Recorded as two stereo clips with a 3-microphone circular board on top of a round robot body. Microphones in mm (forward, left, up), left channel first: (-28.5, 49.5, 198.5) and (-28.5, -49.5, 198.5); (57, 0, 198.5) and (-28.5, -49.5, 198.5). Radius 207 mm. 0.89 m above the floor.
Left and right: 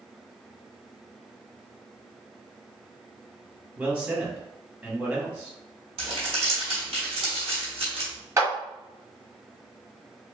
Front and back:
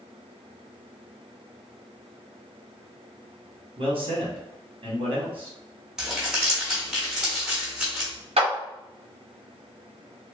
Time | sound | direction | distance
3.8 | a man speaking | 170° right | 1.8 m
6.0 | crumpling | 65° right | 1.2 m
8.4 | a clap | 155° right | 1.3 m